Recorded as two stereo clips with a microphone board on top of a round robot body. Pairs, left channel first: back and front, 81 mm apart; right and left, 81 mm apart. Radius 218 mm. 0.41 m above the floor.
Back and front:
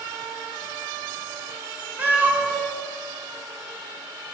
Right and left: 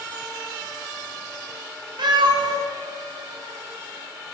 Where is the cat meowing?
70° left, 1.6 m.